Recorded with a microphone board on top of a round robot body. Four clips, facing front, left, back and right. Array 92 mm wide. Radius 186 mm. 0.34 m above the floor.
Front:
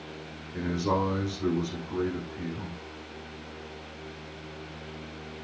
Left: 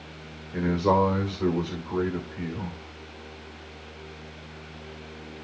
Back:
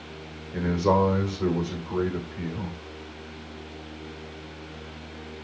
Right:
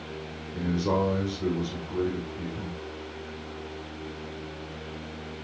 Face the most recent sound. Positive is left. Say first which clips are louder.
# left 4 dB, back 6 dB
turn(degrees=130)